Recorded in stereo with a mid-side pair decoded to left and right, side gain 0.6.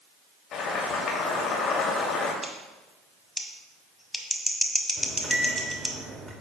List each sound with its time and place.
0.5 s boiling: 55° left, 2.5 m
2.4 s scissors: 5° right, 1.6 m
5.0 s a microwave: 20° right, 2 m